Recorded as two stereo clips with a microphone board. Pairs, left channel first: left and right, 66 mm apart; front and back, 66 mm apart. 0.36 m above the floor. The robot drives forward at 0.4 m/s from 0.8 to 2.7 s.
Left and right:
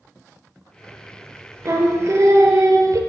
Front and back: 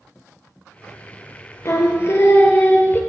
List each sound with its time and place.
1.6 s singing: 45° right, 1.3 m; by 3.0 s 60° right, 1.1 m